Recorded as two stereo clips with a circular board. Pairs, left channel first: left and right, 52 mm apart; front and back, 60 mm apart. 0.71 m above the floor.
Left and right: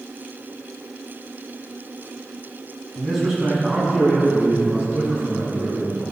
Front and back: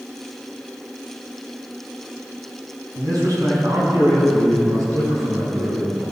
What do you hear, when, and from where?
3.0 s a man speaking: 175° right, 6 m; by 6.0 s 150° right, 7.5 m